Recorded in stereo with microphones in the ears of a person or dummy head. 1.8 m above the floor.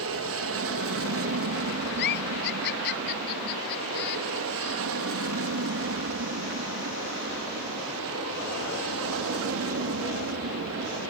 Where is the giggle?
55° left (ahead or behind).